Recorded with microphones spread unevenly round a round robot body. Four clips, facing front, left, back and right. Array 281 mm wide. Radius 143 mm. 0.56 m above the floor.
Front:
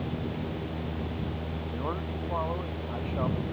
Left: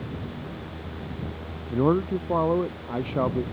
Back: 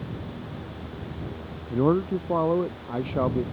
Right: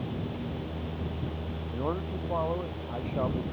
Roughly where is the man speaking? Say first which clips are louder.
Left 11 dB, back 14 dB; behind left.